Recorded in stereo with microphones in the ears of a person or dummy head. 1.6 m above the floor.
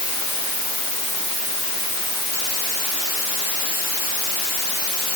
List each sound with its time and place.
Only background noise.